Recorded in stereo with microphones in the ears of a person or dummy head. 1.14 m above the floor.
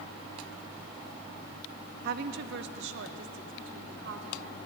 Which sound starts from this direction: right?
A woman speaking, at 2.0 s.